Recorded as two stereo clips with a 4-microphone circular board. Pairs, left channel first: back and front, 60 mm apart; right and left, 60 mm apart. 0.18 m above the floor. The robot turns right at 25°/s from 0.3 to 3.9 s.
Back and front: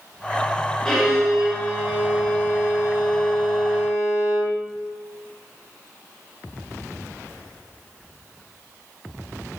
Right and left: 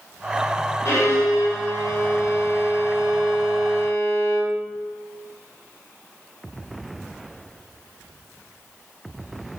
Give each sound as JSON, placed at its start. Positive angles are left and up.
{"t": 0.8, "sound": "a violin", "azimuth_deg": -105, "distance_m": 2.5}